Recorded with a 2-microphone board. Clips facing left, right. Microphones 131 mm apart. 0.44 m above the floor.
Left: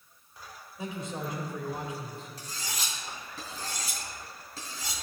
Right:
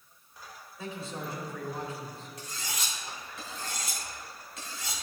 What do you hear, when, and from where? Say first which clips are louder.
0.8 s a man speaking: left 2 dB; 20° left (ahead or behind), 1.8 m
2.4 s cutlery clinking: even; 40° left (ahead or behind), 2.5 m